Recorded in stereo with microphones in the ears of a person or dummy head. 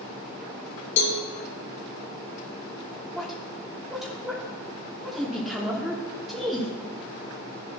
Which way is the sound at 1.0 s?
70° left (ahead or behind).